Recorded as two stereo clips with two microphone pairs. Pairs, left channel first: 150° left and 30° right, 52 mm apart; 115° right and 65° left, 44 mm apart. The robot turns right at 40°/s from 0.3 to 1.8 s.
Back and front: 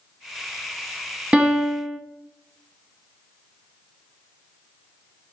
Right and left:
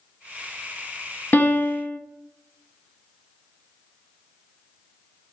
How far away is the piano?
About 0.5 m.